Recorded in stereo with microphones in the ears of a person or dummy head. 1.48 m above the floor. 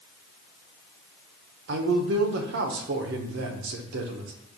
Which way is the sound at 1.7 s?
65° right (ahead or behind).